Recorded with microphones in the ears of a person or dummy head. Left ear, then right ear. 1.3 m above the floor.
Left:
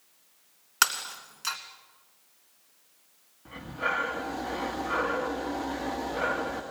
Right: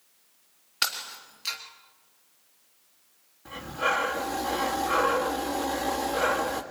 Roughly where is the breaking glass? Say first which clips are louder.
Left 3 dB; left.